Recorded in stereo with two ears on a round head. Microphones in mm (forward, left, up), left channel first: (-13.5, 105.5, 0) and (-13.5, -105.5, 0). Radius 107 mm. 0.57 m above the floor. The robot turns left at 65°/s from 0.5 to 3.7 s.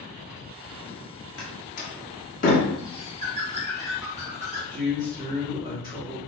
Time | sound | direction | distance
1.4 | a door slam | 40° left (ahead or behind) | 0.8 m
2.8 | a bird | 20° right (ahead or behind) | 0.9 m
4.7 | a man speaking | 20° right (ahead or behind) | 1.1 m